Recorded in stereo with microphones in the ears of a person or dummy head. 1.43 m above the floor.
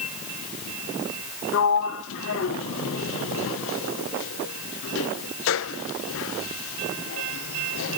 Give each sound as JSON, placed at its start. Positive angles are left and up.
{"t": 1.5, "sound": "a sliding door", "side_deg": 60, "distance_m": 0.8}